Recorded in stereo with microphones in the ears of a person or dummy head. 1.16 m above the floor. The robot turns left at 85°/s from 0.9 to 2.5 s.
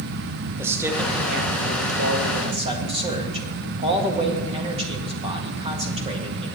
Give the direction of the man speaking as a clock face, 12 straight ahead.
12 o'clock.